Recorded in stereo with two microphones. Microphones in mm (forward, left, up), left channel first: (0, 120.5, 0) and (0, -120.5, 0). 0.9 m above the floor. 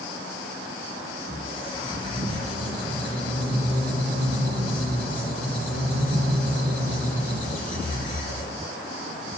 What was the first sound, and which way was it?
A squeak, 70° right (ahead or behind).